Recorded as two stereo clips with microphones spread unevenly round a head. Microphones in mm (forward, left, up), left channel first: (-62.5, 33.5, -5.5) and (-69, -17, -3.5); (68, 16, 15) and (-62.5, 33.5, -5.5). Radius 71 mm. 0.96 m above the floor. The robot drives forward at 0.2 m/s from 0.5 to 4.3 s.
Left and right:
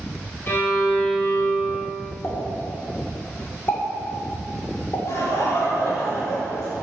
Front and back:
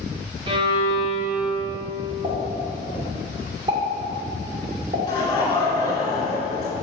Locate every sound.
0.5 s a violin: 120° left, 2 m; by 1.8 s 125° left, 2.5 m
2.2 s a pop: 115° left, 2.5 m; by 5.0 s 120° left, 2.5 m
5.1 s laughter: 55° left, 2.5 m